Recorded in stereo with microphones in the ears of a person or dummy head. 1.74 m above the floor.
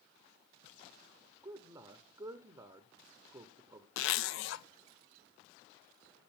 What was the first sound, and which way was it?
A man speaking, 25° right (ahead or behind).